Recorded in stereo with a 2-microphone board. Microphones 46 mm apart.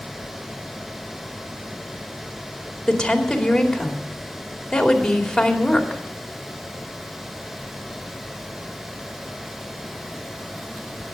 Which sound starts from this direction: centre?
A woman speaking, at 2.9 s.